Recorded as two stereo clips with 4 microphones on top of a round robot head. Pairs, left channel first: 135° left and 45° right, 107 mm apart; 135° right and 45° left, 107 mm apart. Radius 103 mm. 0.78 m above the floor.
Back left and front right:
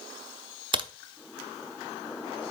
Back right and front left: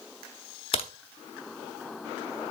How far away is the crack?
About 0.5 m.